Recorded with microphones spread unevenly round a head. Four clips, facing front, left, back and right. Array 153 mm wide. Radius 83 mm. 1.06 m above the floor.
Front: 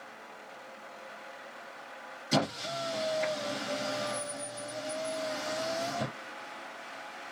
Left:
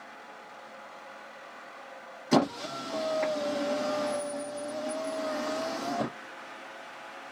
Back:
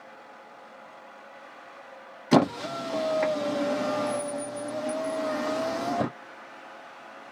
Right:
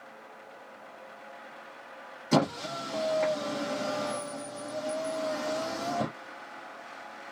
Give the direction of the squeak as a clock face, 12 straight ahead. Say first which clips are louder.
Left 1 dB, back 9 dB; 6 o'clock.